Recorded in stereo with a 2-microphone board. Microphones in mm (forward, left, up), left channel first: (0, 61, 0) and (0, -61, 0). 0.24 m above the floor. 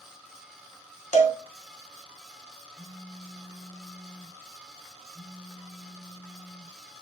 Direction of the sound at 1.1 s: 65° left (ahead or behind).